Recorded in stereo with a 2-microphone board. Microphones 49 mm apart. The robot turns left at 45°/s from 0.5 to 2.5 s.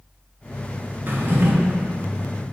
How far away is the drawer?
About 0.5 m.